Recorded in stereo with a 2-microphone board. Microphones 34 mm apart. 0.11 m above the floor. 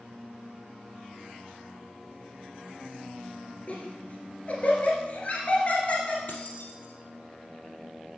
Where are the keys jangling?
60° left (ahead or behind), 1.8 m.